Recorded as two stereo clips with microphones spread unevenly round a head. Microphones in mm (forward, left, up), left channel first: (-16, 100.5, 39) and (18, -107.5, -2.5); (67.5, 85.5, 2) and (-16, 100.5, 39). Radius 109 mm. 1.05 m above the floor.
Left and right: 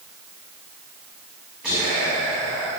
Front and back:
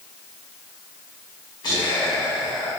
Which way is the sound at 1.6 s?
10° left.